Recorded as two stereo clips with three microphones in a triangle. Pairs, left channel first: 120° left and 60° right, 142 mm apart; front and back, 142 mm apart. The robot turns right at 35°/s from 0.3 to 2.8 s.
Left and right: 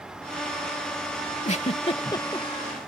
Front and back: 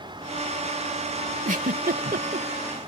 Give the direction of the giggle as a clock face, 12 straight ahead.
7 o'clock.